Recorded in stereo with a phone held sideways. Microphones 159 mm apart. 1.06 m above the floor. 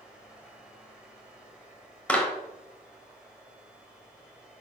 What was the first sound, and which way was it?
A fan, 5° right (ahead or behind).